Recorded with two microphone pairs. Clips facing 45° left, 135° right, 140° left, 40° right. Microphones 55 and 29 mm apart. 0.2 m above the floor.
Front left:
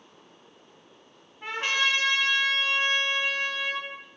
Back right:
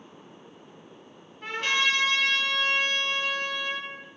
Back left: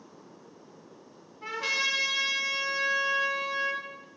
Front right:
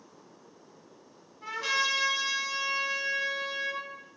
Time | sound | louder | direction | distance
1.4 | a trumpet | back right 1 dB, even | 85° left | 0.9 m